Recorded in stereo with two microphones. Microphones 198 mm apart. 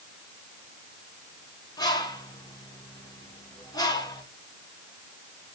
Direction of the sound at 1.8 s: 20° left (ahead or behind).